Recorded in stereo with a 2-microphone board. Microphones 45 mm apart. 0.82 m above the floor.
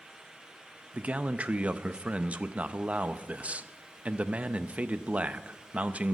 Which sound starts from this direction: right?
A man speaking, at 0.9 s.